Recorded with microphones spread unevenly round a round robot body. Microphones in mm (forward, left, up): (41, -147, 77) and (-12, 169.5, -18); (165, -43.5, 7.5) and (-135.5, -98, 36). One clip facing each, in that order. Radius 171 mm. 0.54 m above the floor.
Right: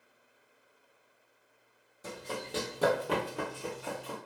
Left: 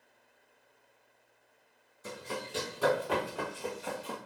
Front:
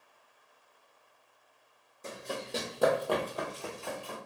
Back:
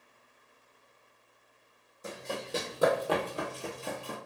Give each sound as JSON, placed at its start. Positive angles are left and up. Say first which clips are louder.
{"t": 2.0, "sound": "running footsteps", "louder": "even, back 1 dB", "azimuth_deg": -80, "distance_m": 1.1}